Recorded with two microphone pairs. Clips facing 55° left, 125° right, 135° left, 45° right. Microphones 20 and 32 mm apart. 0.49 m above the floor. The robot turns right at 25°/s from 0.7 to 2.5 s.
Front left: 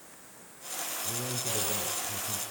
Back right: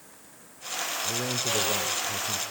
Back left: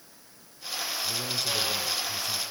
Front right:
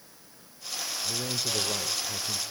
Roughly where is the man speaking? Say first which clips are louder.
Back right 6 dB, even; behind right.